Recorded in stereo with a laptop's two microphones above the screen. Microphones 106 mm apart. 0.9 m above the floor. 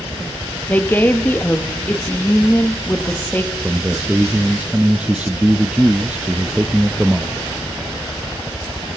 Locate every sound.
0.7 s a woman speaking: 15° left (ahead or behind), 1.3 m
3.6 s a man speaking: 10° right (ahead or behind), 0.5 m